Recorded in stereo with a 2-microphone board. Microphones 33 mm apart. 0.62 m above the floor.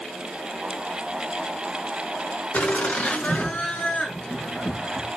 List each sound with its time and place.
2.5 s laughter: 50° left (ahead or behind), 7.5 m; by 5.1 s 20° left (ahead or behind), 8 m